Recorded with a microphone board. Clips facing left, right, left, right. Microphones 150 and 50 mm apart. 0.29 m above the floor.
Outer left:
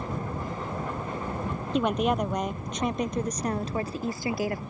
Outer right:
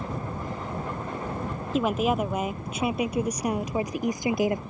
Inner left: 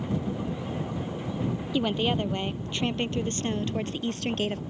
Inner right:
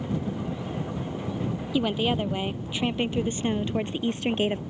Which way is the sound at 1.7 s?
Centre (ahead or behind).